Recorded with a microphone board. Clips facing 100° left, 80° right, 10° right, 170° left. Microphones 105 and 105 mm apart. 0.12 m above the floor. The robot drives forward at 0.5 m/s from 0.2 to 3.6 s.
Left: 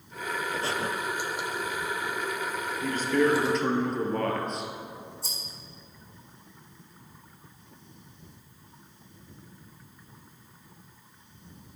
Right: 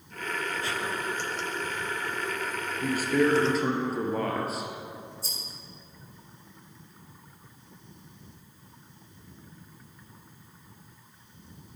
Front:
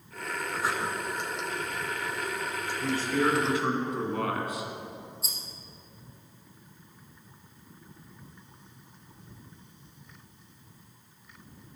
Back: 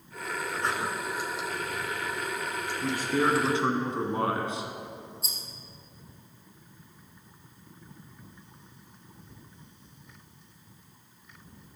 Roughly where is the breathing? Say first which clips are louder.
Left 2 dB, even; ahead left.